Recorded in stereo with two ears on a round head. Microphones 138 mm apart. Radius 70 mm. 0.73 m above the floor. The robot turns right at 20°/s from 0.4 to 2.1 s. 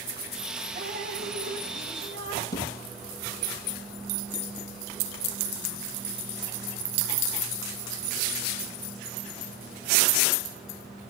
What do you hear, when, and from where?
0.8 s dripping: 55° right (ahead or behind), 3.5 m; by 2.4 s 80° right, 3.5 m
2.5 s a thud: 25° left (ahead or behind), 8 m